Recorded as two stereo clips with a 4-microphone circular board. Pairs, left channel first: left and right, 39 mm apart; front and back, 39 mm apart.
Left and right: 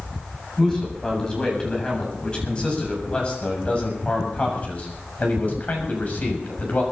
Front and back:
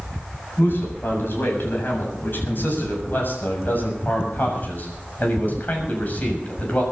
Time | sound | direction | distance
0.6 | a man speaking | 15° left | 7.5 m